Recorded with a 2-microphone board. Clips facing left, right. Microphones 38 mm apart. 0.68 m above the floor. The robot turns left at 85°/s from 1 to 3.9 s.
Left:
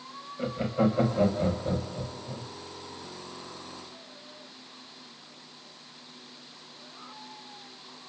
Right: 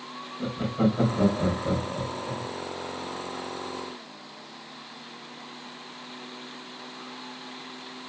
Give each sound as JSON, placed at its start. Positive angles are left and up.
{"t": 0.4, "sound": "laughter", "side_deg": 45, "distance_m": 4.0}